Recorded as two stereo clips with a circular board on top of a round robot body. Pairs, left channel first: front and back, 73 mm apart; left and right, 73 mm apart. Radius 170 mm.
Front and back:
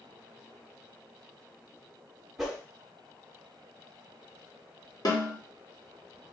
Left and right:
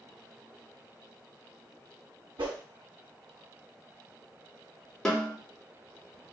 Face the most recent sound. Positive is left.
turn(degrees=10)